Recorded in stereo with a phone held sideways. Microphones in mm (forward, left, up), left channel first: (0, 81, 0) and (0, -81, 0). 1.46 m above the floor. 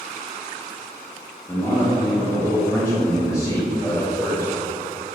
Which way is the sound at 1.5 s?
15° left (ahead or behind).